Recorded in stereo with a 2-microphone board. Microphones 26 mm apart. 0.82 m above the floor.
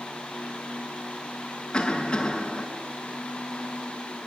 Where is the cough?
30° left (ahead or behind), 7.5 m.